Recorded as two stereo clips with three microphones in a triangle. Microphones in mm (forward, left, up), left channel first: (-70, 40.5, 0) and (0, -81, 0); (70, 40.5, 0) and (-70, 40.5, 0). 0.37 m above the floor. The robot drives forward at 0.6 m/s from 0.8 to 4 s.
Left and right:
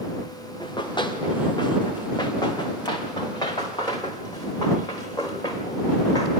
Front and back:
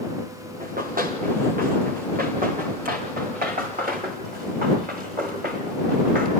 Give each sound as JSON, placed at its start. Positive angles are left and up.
{"t": 0.6, "sound": "running footsteps", "azimuth_deg": 175, "distance_m": 4.5}